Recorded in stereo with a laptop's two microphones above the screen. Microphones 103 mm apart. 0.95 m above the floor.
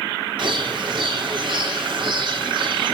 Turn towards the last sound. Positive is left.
turn(degrees=-55)  # may be behind; listen again after turning